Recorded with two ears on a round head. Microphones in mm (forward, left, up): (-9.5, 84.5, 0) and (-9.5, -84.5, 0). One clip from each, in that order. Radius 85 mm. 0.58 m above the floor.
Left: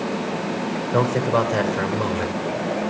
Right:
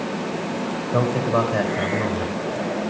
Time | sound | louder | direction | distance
0.9 | a man speaking | left 1 dB | 35° left (ahead or behind) | 2.5 m